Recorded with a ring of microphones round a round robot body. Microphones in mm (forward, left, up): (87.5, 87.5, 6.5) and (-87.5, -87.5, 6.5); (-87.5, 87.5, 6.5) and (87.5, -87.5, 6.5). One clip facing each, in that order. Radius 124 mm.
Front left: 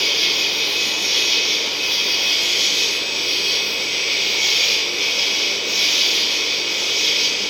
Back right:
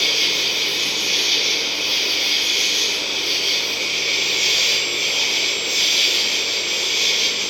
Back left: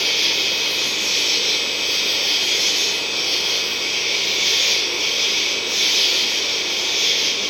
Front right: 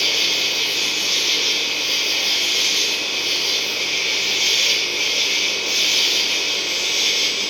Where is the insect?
55° right, 0.8 m.